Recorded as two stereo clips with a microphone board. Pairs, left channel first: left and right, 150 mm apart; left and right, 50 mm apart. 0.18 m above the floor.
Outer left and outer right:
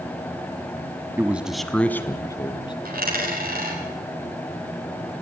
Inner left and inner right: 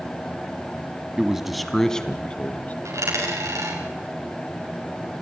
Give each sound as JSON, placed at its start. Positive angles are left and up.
{"t": 1.2, "sound": "a man speaking", "side_deg": -15, "distance_m": 1.1}
{"t": 2.9, "sound": "a dropped coin", "side_deg": -85, "distance_m": 9.0}